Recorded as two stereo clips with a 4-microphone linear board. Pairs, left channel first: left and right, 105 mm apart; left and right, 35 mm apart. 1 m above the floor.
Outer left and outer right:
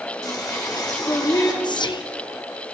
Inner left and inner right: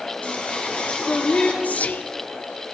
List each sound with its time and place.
0.2 s singing: 40° left (ahead or behind), 1.8 m
1.6 s whispering: 45° left (ahead or behind), 0.6 m